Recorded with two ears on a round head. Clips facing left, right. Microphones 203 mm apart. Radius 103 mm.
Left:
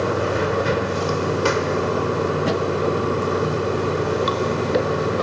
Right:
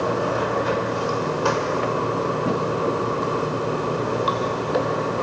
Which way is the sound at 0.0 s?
30° left (ahead or behind).